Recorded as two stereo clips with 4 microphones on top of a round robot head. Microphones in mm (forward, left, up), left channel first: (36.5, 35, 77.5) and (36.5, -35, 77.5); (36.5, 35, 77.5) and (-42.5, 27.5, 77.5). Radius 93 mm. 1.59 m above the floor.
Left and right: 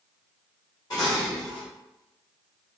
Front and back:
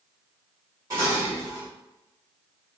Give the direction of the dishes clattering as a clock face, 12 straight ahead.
8 o'clock.